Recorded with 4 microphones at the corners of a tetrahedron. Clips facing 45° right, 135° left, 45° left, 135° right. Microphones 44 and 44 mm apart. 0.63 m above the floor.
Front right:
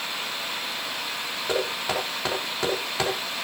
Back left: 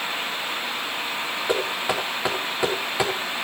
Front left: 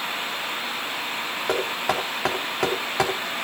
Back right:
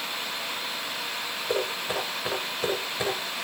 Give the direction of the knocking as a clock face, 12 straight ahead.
10 o'clock.